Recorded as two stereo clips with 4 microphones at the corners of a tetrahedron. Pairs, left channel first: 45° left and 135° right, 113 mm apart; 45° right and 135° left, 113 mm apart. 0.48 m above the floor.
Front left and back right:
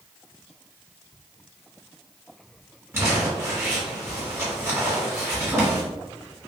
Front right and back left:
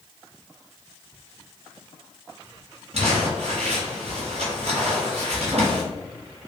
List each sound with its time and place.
2.9 s crumpling: 155° left, 1.6 m